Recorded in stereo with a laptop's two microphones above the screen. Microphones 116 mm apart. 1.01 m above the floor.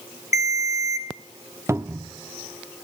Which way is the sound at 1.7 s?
25° right (ahead or behind).